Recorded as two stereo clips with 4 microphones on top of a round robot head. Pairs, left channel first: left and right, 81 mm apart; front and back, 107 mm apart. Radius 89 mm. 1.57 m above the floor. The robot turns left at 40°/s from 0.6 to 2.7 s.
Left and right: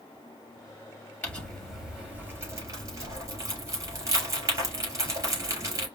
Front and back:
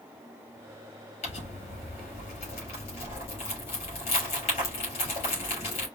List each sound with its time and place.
1.2 s crumpling: 15° left, 3.5 m; by 5.9 s 45° right, 3.5 m